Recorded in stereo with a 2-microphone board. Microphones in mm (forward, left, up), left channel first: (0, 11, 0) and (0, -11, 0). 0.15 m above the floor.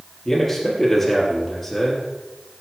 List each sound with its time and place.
0.2 s a man speaking: 5° left (ahead or behind), 4.5 m